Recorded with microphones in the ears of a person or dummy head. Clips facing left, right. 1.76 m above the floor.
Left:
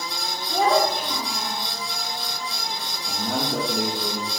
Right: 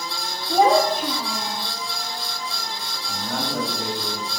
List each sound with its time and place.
0.5 s a child speaking: 30° right (ahead or behind), 1.0 m; by 1.6 s 60° right (ahead or behind), 1.4 m
3.1 s a man speaking: 40° left (ahead or behind), 1.9 m